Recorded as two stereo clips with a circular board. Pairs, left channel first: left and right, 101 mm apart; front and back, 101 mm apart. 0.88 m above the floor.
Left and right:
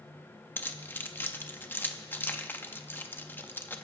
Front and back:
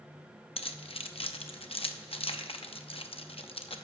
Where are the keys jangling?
20° left, 0.7 m.